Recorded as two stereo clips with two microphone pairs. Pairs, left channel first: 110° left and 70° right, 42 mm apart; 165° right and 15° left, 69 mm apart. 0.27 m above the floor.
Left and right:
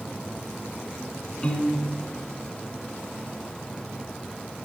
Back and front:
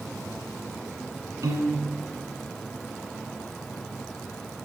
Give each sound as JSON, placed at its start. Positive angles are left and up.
{"t": 1.4, "sound": "a piano", "azimuth_deg": 40, "distance_m": 1.6}